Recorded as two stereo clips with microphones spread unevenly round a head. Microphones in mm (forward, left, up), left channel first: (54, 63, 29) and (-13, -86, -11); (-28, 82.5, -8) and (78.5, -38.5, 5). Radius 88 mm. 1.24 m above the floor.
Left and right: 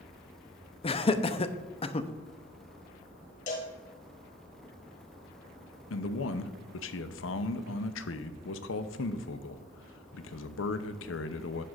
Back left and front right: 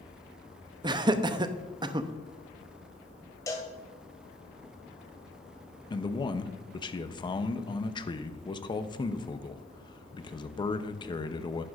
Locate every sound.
0.8 s laughter: 10° left, 0.7 m
3.5 s a cowbell: 60° left, 1.5 m
5.9 s a man speaking: 75° left, 0.7 m